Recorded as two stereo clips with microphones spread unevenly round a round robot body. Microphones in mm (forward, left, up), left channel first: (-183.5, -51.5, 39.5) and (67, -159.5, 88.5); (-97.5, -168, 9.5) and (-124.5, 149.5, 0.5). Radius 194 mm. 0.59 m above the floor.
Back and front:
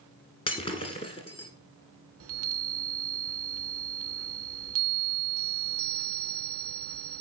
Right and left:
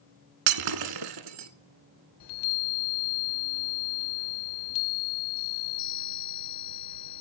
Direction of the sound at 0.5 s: 75° left.